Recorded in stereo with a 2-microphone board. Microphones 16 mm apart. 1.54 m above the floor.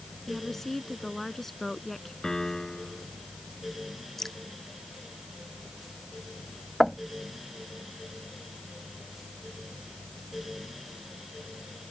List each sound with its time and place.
0.3 s a woman speaking: 15° left (ahead or behind)
2.2 s a piano: 35° left (ahead or behind)
4.2 s dripping: 15° left (ahead or behind)
6.8 s knocking: 5° right (ahead or behind)